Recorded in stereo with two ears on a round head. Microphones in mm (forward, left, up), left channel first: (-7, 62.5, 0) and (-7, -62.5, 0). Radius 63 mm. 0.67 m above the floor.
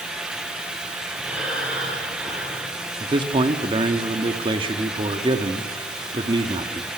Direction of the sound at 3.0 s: 35° right (ahead or behind).